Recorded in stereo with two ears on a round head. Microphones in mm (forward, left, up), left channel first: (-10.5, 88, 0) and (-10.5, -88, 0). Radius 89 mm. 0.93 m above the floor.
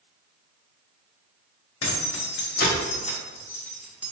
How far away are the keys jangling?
About 1.1 m.